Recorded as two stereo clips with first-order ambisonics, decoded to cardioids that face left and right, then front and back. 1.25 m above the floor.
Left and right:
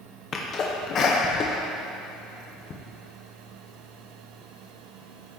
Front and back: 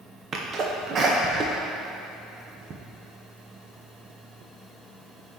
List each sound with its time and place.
0.3 s a sneeze: 130° left, 0.7 m